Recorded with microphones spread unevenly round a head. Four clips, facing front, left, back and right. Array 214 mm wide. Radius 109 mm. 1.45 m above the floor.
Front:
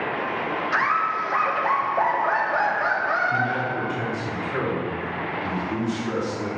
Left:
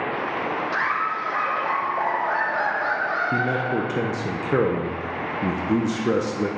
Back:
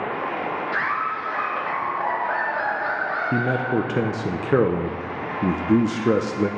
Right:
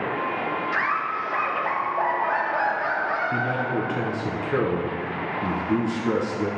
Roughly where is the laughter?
Ahead.